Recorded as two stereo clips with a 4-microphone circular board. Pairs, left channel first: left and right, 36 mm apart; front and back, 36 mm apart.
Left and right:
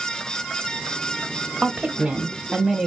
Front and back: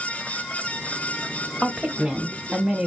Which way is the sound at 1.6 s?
130° right.